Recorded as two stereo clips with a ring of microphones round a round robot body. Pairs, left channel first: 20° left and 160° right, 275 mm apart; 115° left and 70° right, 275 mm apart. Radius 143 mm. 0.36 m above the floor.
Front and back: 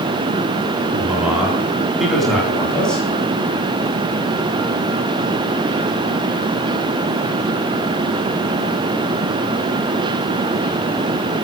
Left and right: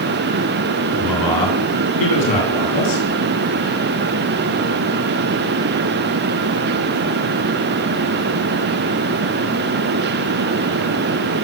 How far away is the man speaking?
About 4.5 m.